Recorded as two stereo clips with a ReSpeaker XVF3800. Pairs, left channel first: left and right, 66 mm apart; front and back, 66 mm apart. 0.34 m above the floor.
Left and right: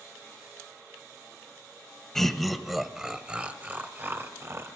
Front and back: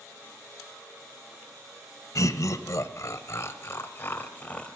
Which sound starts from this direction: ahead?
Laughter, at 2.1 s.